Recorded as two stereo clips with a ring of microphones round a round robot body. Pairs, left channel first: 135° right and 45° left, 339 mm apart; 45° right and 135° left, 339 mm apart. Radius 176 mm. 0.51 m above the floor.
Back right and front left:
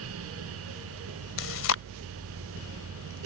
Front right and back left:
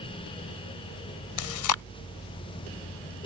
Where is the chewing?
80° right.